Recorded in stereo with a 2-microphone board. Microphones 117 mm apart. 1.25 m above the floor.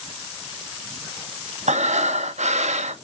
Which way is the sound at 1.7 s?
80° right.